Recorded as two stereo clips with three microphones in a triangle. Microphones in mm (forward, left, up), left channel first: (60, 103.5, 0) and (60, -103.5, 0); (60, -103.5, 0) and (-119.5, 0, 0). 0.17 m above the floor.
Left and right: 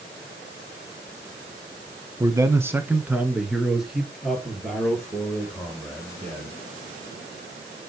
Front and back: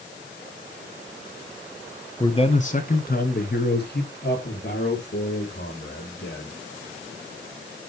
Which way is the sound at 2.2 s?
45° right.